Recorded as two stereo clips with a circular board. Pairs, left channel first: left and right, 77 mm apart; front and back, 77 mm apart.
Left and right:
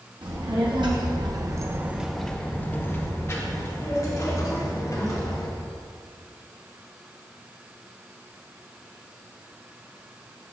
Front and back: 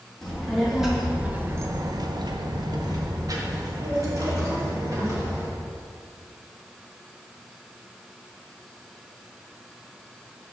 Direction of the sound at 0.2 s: 85° right.